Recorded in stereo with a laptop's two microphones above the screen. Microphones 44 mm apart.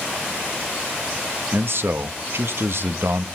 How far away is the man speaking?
About 1.2 m.